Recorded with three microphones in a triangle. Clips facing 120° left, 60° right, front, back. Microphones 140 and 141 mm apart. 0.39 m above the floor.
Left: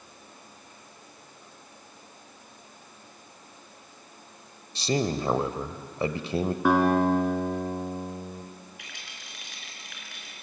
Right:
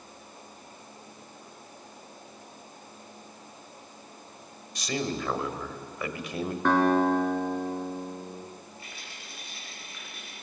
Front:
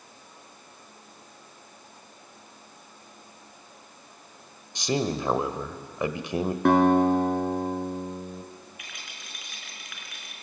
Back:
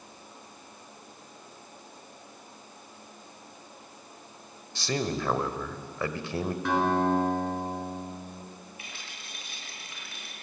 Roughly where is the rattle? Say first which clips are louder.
Right 2 dB, even; behind left.